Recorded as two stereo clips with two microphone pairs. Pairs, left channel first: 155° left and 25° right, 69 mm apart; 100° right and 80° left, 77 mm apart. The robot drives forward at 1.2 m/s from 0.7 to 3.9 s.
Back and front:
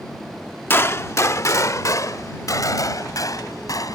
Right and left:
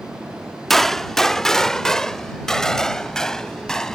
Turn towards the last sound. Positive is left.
turn(degrees=180)